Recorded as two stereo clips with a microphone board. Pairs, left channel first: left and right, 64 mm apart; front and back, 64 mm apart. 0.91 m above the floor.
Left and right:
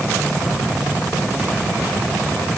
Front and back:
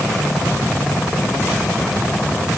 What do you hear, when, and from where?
Only background noise.